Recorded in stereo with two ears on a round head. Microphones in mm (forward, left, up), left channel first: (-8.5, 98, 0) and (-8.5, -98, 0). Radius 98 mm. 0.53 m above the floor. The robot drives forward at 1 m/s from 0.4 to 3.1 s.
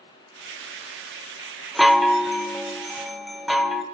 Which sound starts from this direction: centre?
A chime, at 1.8 s.